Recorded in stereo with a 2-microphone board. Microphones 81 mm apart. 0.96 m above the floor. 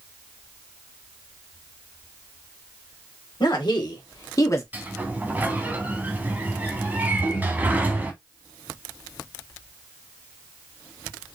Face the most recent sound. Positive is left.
turn(degrees=55)  # may be behind; listen again after turning